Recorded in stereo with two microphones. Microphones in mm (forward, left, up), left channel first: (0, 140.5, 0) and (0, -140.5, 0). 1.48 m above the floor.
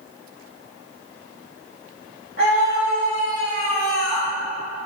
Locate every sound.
2.4 s a scream: 45° left (ahead or behind), 1.8 m; by 4.3 s centre (ahead or behind), 2.5 m